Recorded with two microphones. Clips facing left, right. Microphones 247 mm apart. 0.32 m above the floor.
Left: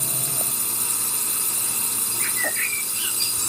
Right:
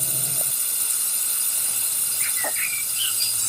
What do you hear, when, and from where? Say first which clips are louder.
0.0 s a drone: left 4 dB; 70° left (ahead or behind)
2.2 s a bird: left 1 dB; 20° left (ahead or behind)